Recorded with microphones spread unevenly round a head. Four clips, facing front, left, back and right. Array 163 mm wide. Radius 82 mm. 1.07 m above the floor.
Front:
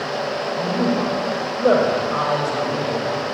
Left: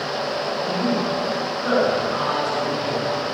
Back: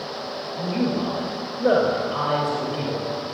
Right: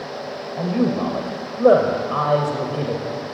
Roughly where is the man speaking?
Right.